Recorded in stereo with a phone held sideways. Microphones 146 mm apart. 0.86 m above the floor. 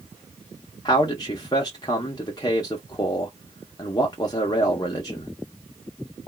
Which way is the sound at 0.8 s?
30° left (ahead or behind).